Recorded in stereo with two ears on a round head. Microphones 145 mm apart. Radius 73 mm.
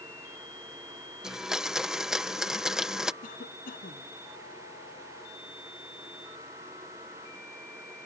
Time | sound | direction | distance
1.2 | a blender | 5° right (ahead or behind) | ?
3.2 | a cough | 55° left (ahead or behind) | ?